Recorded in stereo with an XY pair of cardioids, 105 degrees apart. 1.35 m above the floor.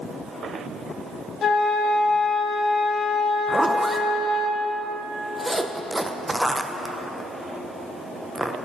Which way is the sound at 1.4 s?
55° left.